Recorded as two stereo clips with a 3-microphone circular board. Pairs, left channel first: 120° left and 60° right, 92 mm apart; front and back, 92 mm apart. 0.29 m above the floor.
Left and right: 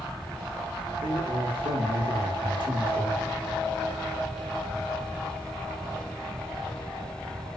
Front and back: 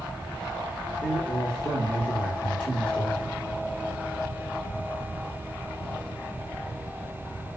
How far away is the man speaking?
About 5.5 m.